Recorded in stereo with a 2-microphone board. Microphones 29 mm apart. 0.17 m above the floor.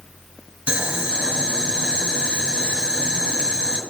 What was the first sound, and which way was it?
Boiling, 50° right (ahead or behind).